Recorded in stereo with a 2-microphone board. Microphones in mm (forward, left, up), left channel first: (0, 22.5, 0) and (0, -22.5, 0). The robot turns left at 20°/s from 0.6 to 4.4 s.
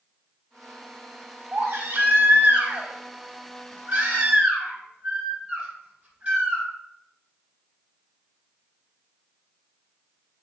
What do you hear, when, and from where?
1.5 s a baby crying: 100° right, 2.5 m; by 6.6 s 155° right, 2.5 m